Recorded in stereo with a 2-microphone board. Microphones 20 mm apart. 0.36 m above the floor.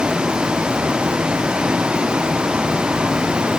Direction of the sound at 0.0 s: 85° right.